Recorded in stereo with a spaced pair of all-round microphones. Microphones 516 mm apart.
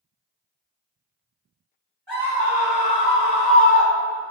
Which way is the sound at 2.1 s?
50° right (ahead or behind).